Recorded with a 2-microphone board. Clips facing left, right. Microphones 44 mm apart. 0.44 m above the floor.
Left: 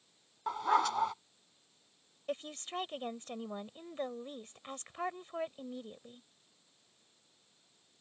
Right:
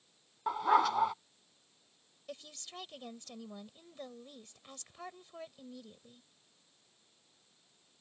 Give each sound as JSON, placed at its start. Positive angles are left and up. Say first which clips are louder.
{"t": 0.5, "sound": "a dog barking", "louder": "right 2 dB", "side_deg": -5}
{"t": 2.3, "sound": "a woman speaking", "louder": "left 9 dB", "side_deg": 40}